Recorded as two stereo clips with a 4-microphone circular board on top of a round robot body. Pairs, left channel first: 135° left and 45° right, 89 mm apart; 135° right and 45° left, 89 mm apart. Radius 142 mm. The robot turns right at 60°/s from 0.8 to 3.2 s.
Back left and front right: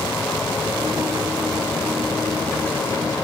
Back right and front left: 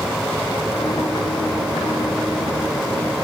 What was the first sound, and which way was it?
Only background noise.